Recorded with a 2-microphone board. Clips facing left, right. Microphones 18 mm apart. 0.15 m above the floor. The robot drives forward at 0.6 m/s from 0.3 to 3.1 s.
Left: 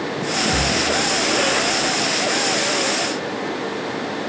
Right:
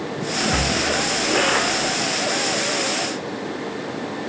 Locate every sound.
0.4 s a splash: 80° right, 4 m